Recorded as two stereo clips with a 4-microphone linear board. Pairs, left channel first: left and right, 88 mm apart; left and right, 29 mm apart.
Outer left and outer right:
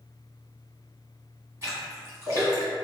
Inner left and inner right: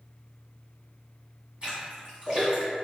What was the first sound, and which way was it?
A splash, 30° right (ahead or behind).